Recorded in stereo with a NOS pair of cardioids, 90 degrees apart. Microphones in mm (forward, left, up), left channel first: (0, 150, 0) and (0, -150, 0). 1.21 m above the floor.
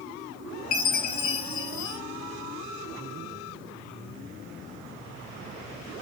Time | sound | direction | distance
0.7 | a chime | 70° left | 2 m